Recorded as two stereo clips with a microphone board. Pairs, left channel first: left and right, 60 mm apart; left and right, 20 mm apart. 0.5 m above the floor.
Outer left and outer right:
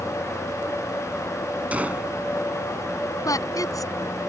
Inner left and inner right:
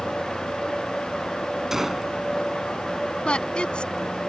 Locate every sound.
1.7 s a gunshot: 25° right (ahead or behind)
3.2 s a woman speaking: 75° left (ahead or behind)